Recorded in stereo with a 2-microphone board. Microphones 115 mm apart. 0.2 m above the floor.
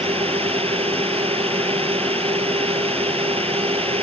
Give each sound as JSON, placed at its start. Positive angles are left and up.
{"t": 0.0, "sound": "a drone", "side_deg": -55}